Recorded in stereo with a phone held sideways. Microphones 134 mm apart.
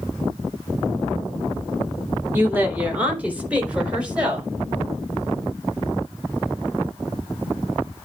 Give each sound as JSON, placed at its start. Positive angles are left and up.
{"t": 2.3, "sound": "a woman speaking", "side_deg": -15, "distance_m": 2.5}